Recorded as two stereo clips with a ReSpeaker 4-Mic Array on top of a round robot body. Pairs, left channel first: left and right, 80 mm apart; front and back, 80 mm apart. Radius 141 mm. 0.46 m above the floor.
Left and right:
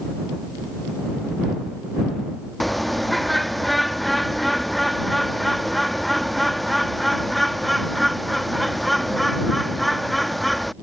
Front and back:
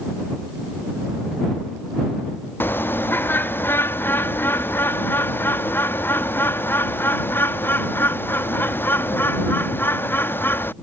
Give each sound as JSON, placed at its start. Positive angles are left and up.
{"t": 2.6, "sound": "a bird", "azimuth_deg": 0}